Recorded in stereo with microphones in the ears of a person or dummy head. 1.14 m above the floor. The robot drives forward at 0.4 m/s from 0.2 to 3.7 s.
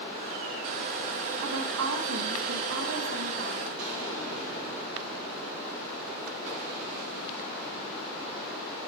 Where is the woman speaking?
80° right, 1.2 m; by 3.7 s 50° right (ahead or behind), 1.5 m.